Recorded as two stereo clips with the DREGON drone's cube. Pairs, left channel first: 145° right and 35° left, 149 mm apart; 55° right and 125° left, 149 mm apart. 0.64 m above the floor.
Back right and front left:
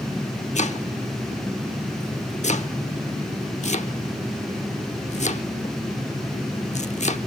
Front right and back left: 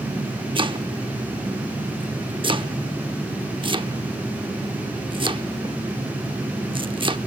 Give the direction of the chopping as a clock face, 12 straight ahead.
6 o'clock.